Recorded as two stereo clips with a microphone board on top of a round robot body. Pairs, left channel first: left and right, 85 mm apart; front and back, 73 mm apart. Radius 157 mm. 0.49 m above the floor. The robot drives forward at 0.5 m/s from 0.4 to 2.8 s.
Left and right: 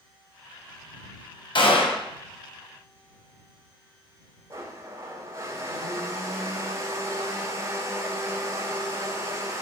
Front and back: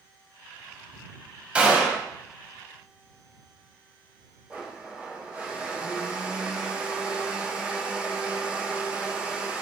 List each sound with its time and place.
1.6 s a gunshot: 105° left, 1.7 m; by 2.0 s 115° left, 1.7 m
4.5 s a blender: 115° right, 1.5 m